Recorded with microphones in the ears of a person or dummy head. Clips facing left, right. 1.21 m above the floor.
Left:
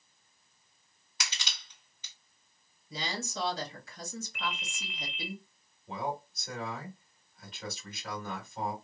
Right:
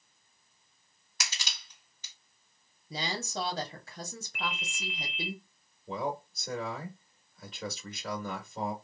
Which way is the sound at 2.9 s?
50° right (ahead or behind).